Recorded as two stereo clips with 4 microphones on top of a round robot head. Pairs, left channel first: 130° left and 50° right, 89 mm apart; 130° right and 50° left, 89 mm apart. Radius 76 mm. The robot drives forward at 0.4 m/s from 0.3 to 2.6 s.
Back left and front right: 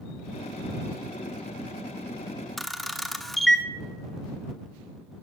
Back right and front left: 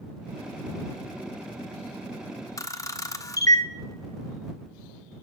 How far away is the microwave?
I don't hear a microwave.